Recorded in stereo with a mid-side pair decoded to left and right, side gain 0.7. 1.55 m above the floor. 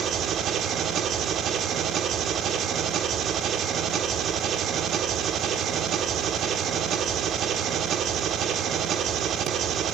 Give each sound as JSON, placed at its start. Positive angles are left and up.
{"t": 0.0, "sound": "an engine running", "azimuth_deg": -45, "distance_m": 1.4}